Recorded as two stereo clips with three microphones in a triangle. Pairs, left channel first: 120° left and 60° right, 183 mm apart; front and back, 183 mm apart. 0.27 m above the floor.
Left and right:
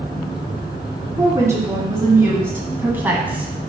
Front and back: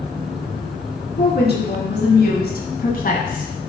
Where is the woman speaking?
10° left, 3 m; by 3.5 s 20° left, 2 m.